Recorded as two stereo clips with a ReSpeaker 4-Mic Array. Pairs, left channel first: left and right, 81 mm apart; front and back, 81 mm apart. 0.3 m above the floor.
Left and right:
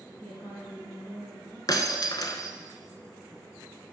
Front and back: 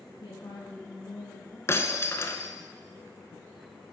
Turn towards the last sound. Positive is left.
turn(degrees=55)